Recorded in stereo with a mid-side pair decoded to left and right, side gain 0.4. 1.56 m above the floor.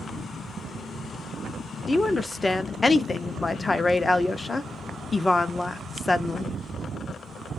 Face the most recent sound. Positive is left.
turn(degrees=25)